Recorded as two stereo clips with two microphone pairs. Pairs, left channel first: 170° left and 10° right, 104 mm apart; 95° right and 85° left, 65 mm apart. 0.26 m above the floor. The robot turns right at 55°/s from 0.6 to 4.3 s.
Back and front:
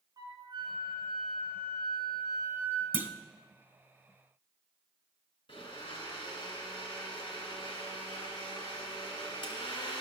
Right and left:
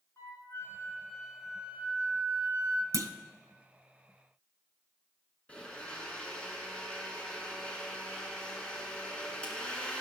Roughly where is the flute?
Ahead right.